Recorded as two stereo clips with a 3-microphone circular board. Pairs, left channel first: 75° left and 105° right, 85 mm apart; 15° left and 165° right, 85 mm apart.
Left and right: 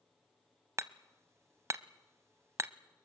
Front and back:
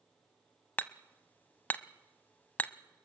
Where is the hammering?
55° right, 0.6 m.